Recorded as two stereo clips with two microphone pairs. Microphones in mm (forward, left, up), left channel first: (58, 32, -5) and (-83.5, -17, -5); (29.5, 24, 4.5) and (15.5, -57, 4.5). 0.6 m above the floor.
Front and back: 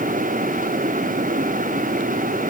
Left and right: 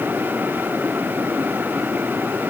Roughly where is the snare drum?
I don't hear a snare drum.